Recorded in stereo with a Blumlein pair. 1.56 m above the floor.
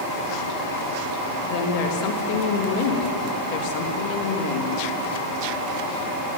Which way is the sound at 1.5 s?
45° left.